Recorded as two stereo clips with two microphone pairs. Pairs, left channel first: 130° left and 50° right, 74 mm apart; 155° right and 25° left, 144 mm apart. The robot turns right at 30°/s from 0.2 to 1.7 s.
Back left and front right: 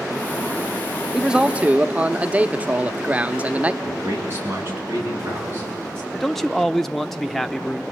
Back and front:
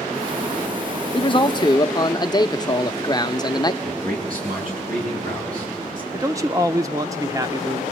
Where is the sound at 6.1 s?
40° left, 0.7 m.